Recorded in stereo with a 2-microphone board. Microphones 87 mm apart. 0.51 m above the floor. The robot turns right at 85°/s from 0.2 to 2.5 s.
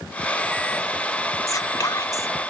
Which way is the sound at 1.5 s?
65° left.